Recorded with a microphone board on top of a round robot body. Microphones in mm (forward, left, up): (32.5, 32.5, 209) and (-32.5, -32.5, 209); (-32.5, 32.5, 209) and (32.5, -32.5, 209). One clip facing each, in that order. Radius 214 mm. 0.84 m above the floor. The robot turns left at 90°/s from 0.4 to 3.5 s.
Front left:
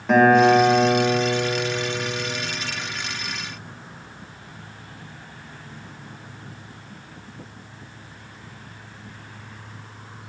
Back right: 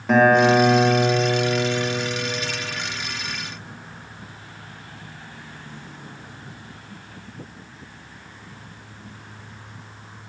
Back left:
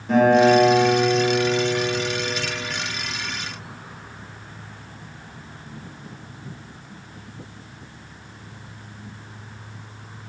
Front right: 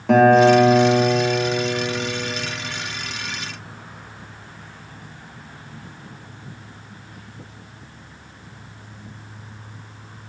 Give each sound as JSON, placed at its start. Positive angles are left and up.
{"t": 0.1, "sound": "a guitar", "azimuth_deg": -45, "distance_m": 3.0}